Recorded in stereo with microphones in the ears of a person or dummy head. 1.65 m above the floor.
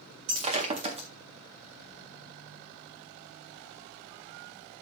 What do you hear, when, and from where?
0.3 s breaking glass: 30° right (ahead or behind), 1.8 m